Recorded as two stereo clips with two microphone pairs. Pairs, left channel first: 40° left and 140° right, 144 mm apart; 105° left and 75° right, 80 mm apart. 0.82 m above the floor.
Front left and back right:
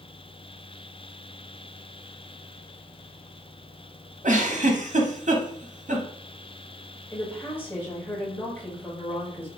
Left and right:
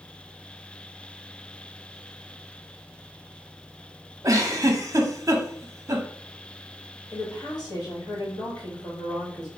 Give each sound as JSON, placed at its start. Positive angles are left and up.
{"t": 4.2, "sound": "a giggle", "azimuth_deg": -115, "distance_m": 0.7}
{"t": 7.1, "sound": "a woman speaking", "azimuth_deg": 115, "distance_m": 1.6}